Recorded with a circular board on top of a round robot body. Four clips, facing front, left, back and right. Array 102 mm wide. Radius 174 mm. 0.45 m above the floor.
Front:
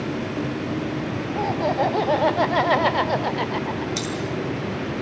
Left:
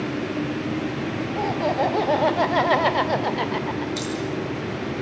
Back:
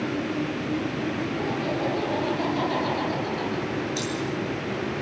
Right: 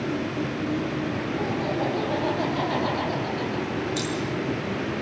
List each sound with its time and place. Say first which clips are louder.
1.3 s laughter: left 6 dB, front 5 dB; 35° left, 4 m; by 3.9 s 50° left, 2 m
4.0 s keys jangling: even, front 1 dB; 15° left, 8 m